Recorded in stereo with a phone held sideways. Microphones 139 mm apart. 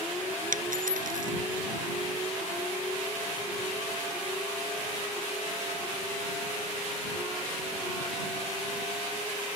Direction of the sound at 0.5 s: 80° right.